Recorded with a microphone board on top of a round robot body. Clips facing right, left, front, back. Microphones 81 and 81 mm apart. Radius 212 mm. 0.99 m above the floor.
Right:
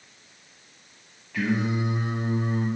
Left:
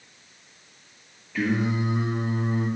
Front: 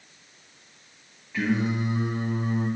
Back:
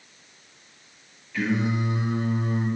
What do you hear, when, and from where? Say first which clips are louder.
1.3 s singing: left 1 dB, even; 60° right, 1.1 m